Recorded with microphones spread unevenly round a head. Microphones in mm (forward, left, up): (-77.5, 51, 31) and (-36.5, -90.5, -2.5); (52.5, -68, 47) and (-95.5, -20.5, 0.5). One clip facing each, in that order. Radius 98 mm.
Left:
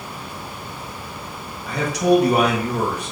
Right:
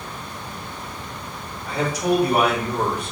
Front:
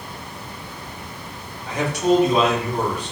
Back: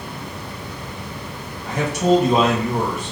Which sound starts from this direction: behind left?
A man speaking, at 1.7 s.